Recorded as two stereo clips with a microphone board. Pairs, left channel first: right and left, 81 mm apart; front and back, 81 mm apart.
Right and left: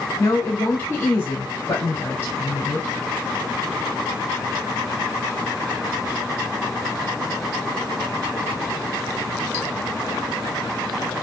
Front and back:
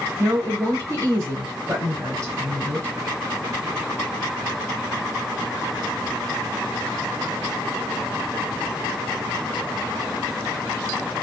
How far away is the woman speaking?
About 1.7 m.